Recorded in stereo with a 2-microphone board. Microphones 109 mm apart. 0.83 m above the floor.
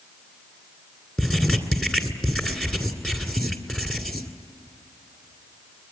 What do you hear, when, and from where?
1.2 s writing: 5° left (ahead or behind), 2 m